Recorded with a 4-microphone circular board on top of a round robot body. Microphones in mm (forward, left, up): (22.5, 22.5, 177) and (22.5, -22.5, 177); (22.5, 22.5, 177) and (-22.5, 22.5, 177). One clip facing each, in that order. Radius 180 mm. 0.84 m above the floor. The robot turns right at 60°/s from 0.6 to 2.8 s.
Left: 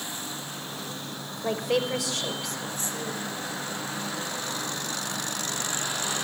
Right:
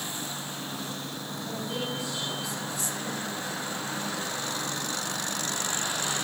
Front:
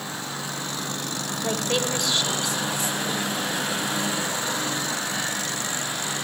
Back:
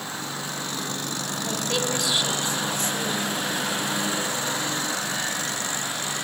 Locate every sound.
1.4 s a woman speaking: 60° left, 5 m; by 3.3 s 140° left, 5 m